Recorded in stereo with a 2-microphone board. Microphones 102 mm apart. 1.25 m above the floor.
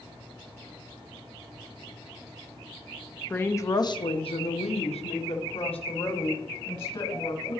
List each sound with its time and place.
3.3 s a woman speaking: 15° left (ahead or behind), 0.8 m; by 7.6 s 55° left (ahead or behind), 2.5 m